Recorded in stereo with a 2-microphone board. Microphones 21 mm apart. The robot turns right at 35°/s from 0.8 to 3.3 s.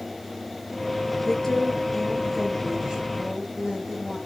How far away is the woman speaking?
About 4.5 m.